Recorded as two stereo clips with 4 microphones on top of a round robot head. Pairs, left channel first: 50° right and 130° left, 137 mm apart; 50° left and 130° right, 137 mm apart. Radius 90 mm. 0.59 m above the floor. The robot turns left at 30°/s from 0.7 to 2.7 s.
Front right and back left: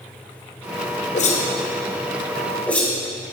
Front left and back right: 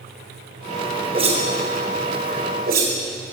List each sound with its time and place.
1.1 s a whoosh: 80° right, 1.8 m; by 3.0 s 130° right, 1.8 m